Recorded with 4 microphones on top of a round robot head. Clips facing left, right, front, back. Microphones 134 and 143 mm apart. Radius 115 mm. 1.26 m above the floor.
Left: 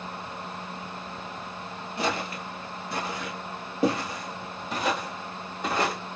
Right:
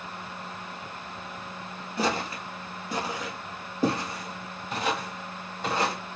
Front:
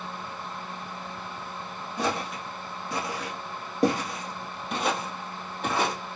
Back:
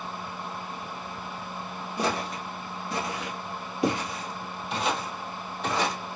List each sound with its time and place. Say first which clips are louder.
2.0 s footsteps: right 1 dB, even; 100° right, 1.3 m; by 6.0 s 30° left, 2.5 m